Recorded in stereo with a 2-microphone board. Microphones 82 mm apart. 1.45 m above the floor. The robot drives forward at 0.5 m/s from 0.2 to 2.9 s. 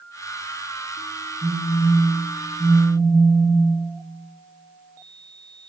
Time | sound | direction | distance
1.4 | a phone buzzing | 5° left (ahead or behind) | 1.2 m